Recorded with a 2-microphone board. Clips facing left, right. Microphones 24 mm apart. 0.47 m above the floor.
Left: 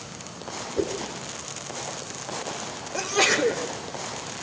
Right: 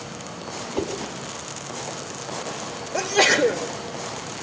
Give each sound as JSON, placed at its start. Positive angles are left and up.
{"t": 0.8, "sound": "a whoosh", "side_deg": -65, "distance_m": 4.0}
{"t": 2.9, "sound": "a sneeze", "side_deg": -15, "distance_m": 1.6}